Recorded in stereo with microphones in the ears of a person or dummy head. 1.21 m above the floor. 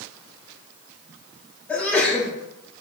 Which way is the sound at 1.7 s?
10° left (ahead or behind).